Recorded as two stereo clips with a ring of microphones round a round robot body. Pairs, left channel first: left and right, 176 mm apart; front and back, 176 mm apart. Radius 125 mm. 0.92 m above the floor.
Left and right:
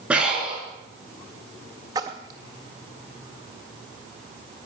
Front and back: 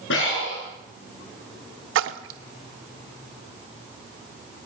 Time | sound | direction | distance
0.1 | breathing | 5° right | 5.5 m
1.9 | a splash | 165° right | 0.5 m